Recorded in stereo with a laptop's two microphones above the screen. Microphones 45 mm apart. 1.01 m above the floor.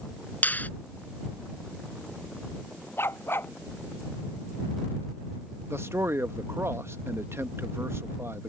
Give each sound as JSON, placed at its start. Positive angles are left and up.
{"t": 0.4, "sound": "a finger snap", "side_deg": 35}
{"t": 3.0, "sound": "a dog barking", "side_deg": 55}
{"t": 5.7, "sound": "a man speaking", "side_deg": -70}